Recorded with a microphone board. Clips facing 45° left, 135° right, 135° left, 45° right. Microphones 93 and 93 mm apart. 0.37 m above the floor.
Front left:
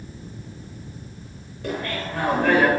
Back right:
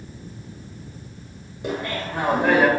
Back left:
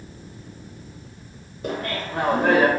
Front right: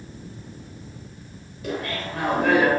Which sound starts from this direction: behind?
Laughter, at 1.6 s.